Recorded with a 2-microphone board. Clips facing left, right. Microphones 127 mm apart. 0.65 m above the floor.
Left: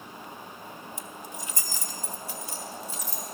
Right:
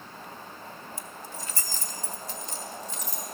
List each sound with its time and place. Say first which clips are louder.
1.0 s keys jangling: left 1 dB; 20° left (ahead or behind), 0.6 m; by 3.2 s 10° left (ahead or behind), 2 m